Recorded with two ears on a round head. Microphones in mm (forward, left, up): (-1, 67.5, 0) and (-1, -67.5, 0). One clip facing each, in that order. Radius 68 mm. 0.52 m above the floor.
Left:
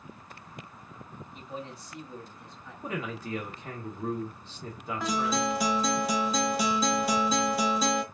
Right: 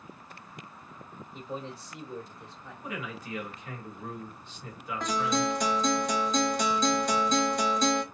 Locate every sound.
1.3 s a man speaking: 25° right (ahead or behind), 1.6 m
2.8 s a man speaking: 30° left (ahead or behind), 1.3 m
5.0 s a guitar: 5° left (ahead or behind), 0.7 m